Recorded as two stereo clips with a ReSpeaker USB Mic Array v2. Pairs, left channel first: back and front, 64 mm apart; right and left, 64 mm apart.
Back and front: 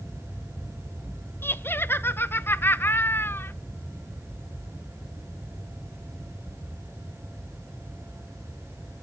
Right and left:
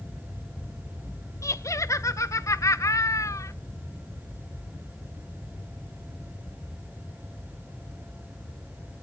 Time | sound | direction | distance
1.4 | laughter | 125° right | 0.8 m